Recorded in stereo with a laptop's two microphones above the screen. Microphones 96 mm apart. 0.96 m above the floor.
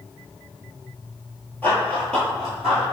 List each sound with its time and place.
1.6 s running footsteps: 20° left (ahead or behind), 1.2 m; by 2.8 s 5° right (ahead or behind), 1.6 m